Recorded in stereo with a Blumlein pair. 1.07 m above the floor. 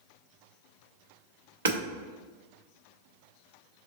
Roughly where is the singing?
I don't hear singing.